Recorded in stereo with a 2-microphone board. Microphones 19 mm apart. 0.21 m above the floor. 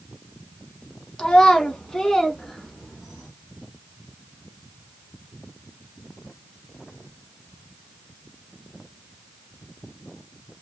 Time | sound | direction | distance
1.2 | a child speaking | 45° left (ahead or behind) | 0.8 m